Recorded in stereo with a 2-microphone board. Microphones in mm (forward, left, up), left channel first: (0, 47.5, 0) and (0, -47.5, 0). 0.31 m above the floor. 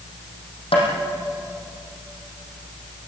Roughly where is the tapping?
Left.